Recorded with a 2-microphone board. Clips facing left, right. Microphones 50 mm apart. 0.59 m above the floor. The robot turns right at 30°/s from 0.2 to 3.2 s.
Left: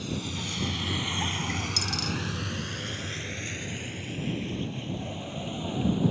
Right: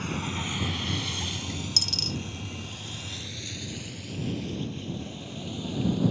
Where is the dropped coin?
60° right (ahead or behind); by 2.2 s 55° right (ahead or behind).